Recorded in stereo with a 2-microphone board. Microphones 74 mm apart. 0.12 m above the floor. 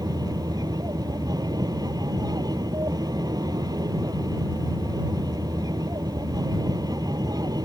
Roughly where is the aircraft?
Right.